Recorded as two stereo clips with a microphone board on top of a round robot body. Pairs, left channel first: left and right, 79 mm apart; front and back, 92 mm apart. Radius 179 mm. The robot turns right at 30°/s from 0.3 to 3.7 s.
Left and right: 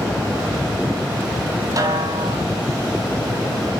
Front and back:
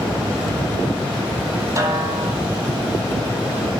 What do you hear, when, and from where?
1.8 s a snare drum: 130° right, 2 m; by 2.4 s 110° right, 2 m